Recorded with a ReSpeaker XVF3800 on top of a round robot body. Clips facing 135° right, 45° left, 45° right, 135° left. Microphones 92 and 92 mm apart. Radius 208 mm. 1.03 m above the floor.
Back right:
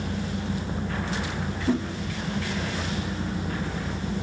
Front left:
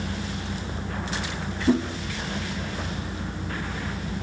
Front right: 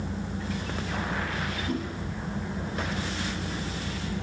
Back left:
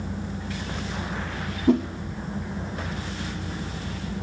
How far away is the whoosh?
About 0.6 m.